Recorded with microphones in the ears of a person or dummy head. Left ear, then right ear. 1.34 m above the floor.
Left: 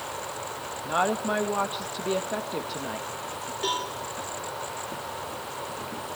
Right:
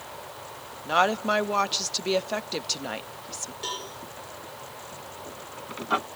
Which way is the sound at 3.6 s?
5° left (ahead or behind).